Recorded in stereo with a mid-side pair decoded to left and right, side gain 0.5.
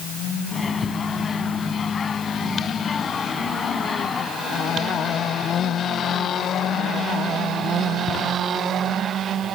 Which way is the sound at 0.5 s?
35° left.